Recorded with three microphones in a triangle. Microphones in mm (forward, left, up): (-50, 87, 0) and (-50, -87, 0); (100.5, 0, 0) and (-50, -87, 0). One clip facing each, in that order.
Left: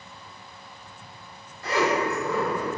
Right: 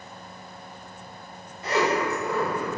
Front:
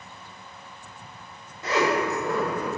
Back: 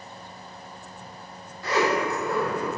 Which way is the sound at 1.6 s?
35° right.